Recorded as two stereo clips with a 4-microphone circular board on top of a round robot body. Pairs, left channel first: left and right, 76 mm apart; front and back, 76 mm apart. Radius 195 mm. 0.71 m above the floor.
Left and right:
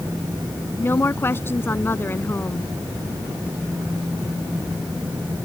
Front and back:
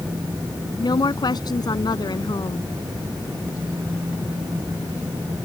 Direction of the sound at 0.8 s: 30° left.